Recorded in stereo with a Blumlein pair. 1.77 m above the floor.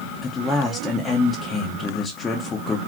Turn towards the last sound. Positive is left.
turn(degrees=15)